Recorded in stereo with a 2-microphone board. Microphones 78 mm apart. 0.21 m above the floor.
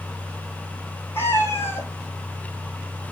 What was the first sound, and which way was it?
A cat meowing, 30° left (ahead or behind).